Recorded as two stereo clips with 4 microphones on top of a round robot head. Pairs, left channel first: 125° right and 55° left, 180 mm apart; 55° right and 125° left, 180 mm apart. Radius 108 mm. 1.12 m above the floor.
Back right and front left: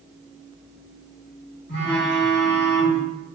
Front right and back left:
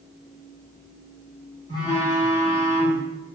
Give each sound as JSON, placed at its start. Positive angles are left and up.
{"t": 1.7, "sound": "a phone buzzing", "azimuth_deg": -115, "distance_m": 0.8}